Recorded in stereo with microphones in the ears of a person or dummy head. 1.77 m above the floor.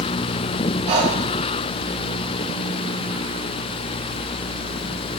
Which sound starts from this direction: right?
Breathing, at 0.9 s.